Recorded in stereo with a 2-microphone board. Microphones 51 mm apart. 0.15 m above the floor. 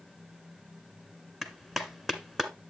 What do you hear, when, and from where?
1.4 s a clap: 5° right (ahead or behind), 1.4 m